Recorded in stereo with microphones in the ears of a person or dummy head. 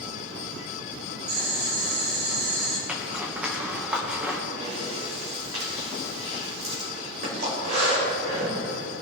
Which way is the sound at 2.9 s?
10° right (ahead or behind).